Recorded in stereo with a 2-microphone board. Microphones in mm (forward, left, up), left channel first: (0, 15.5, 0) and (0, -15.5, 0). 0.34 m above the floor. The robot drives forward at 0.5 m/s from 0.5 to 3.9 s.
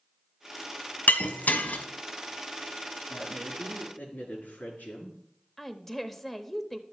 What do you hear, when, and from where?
1.1 s breaking glass: 70° left (ahead or behind), 1.1 m; by 1.8 s 65° left (ahead or behind), 1.2 m
3.1 s a woman speaking: 60° left (ahead or behind), 4.5 m; by 5.2 s 55° left (ahead or behind), 4.5 m
5.6 s a woman speaking: 10° left (ahead or behind), 0.9 m